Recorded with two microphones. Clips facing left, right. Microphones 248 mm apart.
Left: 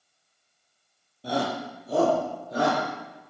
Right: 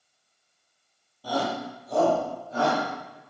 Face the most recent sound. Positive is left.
turn(degrees=45)  # may be behind; listen again after turning